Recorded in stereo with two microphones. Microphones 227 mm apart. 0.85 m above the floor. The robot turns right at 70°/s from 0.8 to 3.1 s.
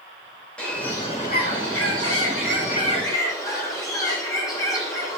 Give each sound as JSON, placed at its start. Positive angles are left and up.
{"t": 0.6, "sound": "a bird", "azimuth_deg": 5, "distance_m": 2.5}